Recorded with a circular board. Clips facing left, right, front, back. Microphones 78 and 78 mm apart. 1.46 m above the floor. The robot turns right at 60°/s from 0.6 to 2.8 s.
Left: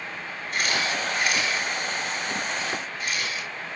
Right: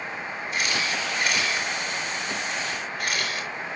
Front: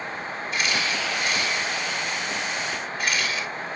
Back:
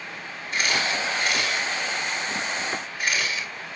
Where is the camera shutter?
135° left, 4.5 m; by 3.5 s 95° right, 4.5 m.